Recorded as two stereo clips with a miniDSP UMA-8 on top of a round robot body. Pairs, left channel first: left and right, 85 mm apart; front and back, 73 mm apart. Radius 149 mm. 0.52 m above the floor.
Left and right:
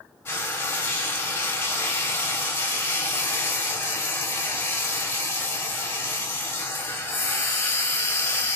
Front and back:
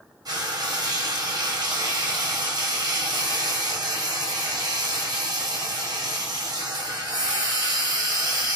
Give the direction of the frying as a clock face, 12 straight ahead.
7 o'clock.